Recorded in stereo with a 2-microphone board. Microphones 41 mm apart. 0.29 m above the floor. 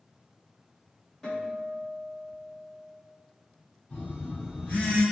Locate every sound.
1.2 s a guitar: 20° left (ahead or behind), 1.3 m
3.9 s a phone buzzing: 50° left (ahead or behind), 1.5 m